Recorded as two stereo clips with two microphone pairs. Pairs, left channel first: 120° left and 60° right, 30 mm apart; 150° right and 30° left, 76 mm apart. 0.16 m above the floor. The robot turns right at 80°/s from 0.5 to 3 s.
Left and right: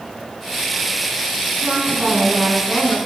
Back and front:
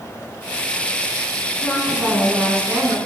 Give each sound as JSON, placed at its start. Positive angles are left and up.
{"t": 1.6, "sound": "a woman speaking", "azimuth_deg": -80, "distance_m": 1.7}